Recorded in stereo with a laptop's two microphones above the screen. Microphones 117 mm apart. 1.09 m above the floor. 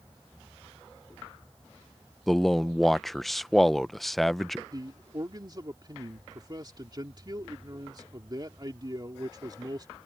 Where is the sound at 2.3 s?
Centre (ahead or behind).